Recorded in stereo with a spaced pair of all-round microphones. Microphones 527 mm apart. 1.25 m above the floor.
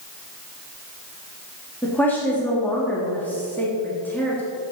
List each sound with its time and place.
1.8 s a woman speaking: 5° left (ahead or behind), 2.5 m